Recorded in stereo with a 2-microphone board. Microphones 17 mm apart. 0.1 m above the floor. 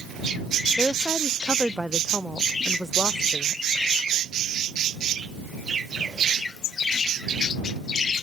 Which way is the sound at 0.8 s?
25° right (ahead or behind).